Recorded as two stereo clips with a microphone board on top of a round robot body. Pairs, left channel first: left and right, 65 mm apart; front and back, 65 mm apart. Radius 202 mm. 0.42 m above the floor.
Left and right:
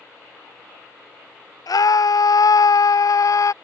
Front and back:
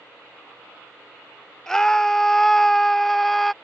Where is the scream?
85° left; by 3.5 s 90° left.